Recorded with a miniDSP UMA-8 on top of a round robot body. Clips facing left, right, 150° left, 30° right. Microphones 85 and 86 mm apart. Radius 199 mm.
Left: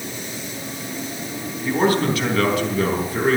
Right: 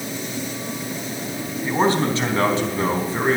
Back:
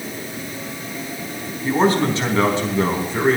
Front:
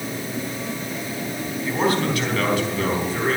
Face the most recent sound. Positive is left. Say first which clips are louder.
# left 1 dB, back 5 dB
turn(degrees=-150)